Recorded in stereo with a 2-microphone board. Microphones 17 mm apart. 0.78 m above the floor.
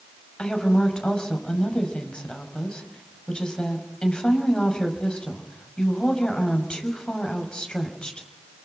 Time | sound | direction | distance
0.4 | a woman speaking | 80° left | 5.5 m